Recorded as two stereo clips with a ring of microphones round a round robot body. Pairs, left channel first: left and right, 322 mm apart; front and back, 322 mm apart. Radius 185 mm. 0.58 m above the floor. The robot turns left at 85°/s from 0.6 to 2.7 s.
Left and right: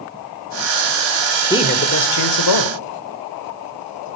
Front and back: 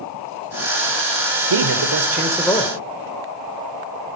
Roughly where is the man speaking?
Behind.